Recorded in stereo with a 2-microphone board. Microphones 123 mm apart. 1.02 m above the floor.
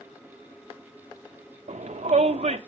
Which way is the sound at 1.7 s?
70° right (ahead or behind).